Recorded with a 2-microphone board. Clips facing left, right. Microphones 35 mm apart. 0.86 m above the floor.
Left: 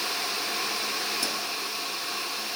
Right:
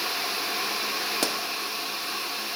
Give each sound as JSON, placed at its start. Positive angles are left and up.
{"t": 1.2, "sound": "a pop", "side_deg": -65, "distance_m": 0.6}